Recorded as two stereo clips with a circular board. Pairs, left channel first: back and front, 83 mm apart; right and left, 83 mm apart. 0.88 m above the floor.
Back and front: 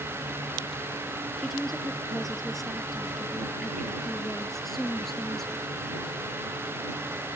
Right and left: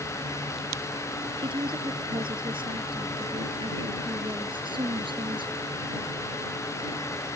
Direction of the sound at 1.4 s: 90° left.